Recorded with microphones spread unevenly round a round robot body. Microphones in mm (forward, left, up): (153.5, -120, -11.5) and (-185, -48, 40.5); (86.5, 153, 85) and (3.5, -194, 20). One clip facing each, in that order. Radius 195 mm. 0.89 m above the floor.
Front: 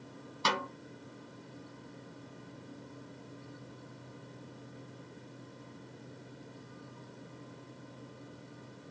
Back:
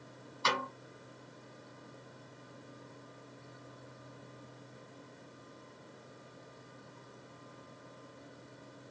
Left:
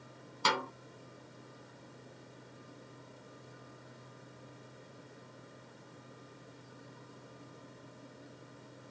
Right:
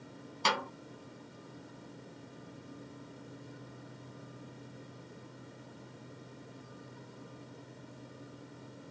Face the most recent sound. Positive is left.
turn(degrees=-5)